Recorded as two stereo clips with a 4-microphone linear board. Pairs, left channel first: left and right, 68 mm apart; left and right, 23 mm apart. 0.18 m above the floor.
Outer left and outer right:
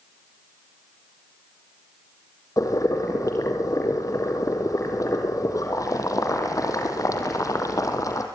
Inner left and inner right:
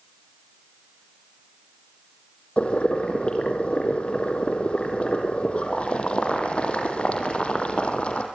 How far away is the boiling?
About 3.5 m.